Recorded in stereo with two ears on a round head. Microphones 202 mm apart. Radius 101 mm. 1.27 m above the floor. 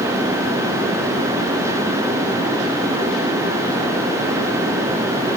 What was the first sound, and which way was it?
Only background noise.